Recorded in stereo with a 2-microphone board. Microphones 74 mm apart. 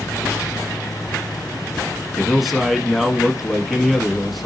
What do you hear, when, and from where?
2.2 s a man speaking: centre (ahead or behind), 1.1 m